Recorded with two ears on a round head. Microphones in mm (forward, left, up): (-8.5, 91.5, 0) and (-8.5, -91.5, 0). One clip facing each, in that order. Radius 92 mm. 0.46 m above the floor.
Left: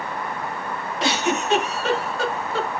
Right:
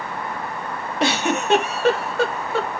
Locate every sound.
1.0 s a giggle: 45° right (ahead or behind), 0.8 m